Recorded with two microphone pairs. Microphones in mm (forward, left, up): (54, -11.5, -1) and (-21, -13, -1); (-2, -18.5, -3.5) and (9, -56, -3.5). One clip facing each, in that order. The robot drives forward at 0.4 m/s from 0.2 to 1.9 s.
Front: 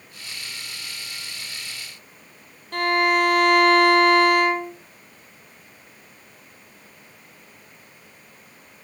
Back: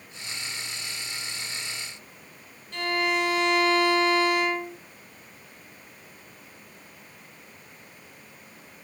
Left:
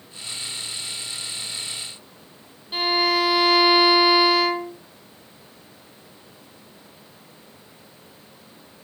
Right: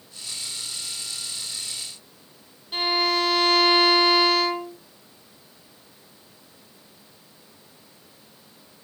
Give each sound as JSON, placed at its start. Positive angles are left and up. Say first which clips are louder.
{"t": 2.7, "sound": "a violin", "louder": "front 7 dB, left 2 dB", "azimuth_deg": 25, "distance_m": 1.3}